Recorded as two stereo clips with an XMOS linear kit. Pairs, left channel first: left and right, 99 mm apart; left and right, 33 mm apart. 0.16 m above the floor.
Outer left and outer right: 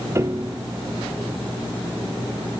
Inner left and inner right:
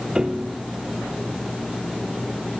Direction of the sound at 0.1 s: 30° right (ahead or behind).